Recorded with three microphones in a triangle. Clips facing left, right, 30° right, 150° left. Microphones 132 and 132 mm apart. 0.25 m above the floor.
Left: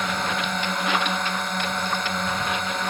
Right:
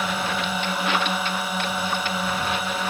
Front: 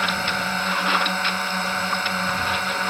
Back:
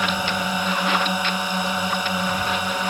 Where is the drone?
160° right.